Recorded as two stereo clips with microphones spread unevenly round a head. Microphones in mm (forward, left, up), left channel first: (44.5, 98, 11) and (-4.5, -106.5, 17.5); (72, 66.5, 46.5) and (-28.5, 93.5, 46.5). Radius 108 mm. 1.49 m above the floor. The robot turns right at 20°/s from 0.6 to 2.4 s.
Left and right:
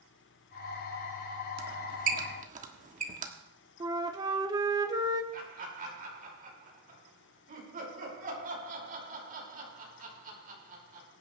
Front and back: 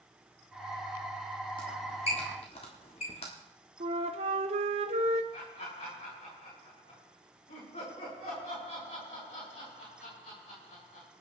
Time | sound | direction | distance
1.6 | a squeak | 75° right | 1.4 m
3.8 | a flute | 175° right | 0.6 m
5.3 | laughter | 55° right | 5.5 m